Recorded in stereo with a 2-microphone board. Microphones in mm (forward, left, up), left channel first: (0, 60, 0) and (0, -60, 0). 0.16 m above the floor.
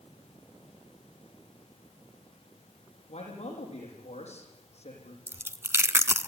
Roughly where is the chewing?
Right.